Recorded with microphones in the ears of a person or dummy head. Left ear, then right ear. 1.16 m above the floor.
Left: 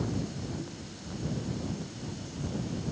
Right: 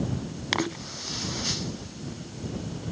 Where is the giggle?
I don't hear a giggle.